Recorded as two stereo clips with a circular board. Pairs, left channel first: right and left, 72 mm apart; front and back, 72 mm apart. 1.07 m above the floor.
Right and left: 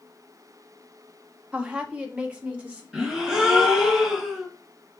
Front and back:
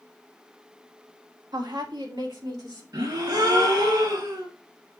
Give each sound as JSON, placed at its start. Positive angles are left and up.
{"t": 1.5, "sound": "a woman speaking", "azimuth_deg": 165, "distance_m": 1.5}
{"t": 2.9, "sound": "a gasp", "azimuth_deg": 170, "distance_m": 2.5}